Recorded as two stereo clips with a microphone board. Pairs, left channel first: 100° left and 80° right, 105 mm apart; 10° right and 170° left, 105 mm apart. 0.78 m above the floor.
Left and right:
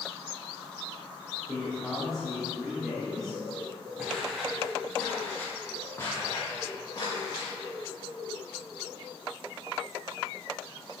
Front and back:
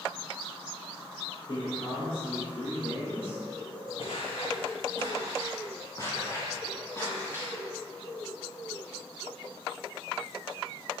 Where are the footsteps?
5° left, 2.5 m; by 7.5 s 55° left, 4.5 m.